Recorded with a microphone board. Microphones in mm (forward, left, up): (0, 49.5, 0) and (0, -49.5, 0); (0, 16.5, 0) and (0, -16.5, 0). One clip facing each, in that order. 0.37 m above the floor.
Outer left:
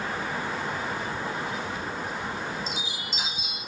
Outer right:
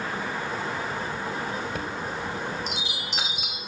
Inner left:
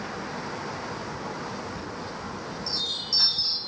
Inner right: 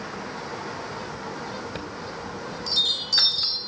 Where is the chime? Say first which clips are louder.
Outer right 1 dB, inner right 1 dB; 80° right, 1.3 m.